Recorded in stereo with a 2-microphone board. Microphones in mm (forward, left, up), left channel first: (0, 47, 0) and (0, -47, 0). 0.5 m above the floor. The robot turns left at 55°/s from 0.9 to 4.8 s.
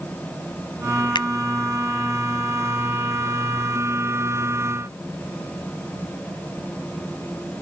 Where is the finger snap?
60° left (ahead or behind); by 1.3 s 50° left (ahead or behind).